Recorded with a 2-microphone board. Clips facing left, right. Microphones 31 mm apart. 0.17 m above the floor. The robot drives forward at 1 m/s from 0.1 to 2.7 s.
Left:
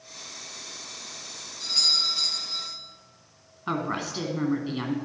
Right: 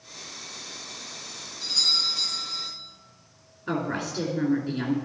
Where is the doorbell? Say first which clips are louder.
Even; 45° left (ahead or behind), 4.5 m; by 2.7 s 40° left (ahead or behind), 5 m.